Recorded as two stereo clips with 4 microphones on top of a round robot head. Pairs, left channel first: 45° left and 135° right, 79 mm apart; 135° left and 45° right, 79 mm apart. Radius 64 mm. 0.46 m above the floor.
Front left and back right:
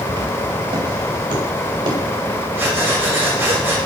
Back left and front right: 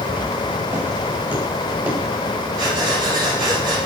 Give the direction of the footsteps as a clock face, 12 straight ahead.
4 o'clock.